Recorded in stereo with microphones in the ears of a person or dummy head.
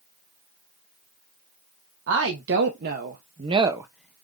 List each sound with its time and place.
2.1 s a woman speaking: 65° right (ahead or behind), 1.1 m; by 4.3 s 15° left (ahead or behind), 0.6 m